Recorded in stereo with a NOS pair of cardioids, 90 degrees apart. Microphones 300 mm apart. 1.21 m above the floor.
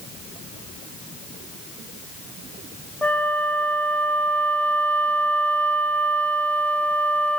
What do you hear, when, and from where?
3.0 s a flute: 5° left, 0.6 m